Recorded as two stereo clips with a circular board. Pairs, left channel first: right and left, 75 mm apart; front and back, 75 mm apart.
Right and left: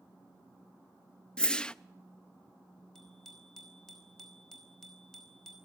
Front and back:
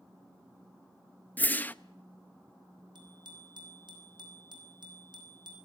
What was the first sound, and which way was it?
A whoosh, 30° right.